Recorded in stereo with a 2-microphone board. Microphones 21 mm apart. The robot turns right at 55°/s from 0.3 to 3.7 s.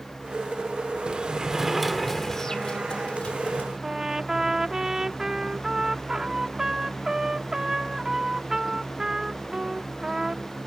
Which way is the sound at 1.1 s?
45° right.